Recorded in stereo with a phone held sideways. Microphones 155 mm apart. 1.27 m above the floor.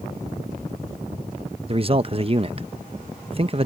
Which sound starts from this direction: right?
A man speaking, at 1.7 s.